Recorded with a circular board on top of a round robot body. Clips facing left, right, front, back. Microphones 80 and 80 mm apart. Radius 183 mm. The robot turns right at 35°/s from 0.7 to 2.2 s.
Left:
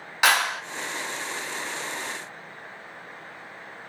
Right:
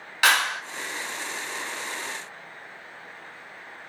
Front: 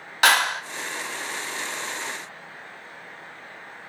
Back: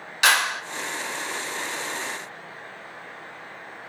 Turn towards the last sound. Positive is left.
turn(degrees=75)